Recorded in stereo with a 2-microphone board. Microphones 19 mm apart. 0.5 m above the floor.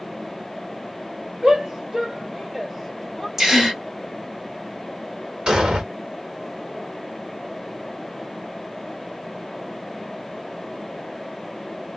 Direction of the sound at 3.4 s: 20° right (ahead or behind).